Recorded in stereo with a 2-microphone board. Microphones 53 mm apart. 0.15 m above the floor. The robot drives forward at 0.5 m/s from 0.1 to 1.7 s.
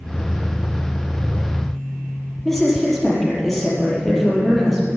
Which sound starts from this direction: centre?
A woman speaking, at 2.5 s.